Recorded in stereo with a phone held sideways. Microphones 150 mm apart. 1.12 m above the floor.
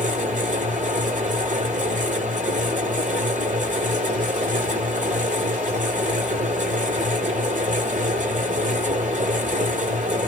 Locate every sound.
0.0 s a fan: 60° right (ahead or behind), 1.2 m